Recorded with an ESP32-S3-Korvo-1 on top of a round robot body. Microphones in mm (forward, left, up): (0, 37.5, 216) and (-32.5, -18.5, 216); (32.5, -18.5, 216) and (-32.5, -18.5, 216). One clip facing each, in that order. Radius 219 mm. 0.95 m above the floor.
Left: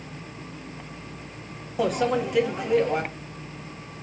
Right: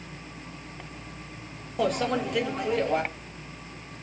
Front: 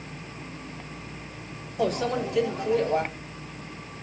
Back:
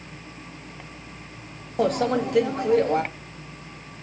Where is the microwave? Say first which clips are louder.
Left 2 dB, back 4 dB; 145° left, 1.5 m.